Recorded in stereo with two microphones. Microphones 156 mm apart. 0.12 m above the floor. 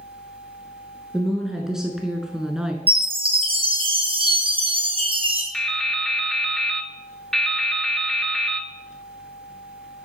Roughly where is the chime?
Right.